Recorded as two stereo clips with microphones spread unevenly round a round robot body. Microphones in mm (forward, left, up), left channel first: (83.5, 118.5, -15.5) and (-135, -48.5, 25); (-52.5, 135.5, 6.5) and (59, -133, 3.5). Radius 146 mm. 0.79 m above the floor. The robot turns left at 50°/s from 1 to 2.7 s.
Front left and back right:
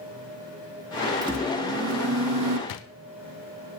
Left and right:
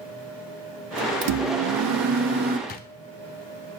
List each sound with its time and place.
1.2 s a microwave: 60° right, 0.6 m; by 2.6 s 130° right, 0.6 m
2.7 s a drawer: 55° left, 0.6 m